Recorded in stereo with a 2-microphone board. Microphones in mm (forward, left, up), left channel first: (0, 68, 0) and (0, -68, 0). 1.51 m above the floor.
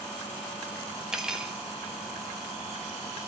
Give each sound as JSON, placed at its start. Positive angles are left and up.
{"t": 1.1, "sound": "cutlery clinking", "side_deg": -5, "distance_m": 0.8}